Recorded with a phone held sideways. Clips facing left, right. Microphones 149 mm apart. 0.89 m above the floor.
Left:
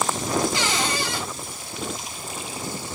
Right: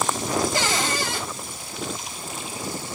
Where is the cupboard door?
50° right (ahead or behind), 4.5 m.